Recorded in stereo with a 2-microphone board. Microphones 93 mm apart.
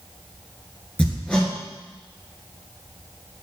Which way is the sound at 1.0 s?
15° left (ahead or behind).